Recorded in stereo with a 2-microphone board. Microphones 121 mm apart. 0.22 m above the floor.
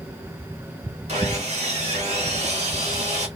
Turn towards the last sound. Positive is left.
turn(degrees=-65)  # may be behind; listen again after turning